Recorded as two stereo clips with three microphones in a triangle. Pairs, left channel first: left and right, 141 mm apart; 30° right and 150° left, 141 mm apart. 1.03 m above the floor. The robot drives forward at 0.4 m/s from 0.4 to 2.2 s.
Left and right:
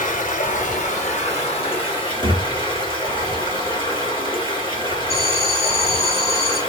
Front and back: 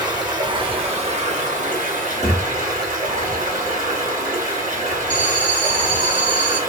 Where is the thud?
75° right, 0.6 m.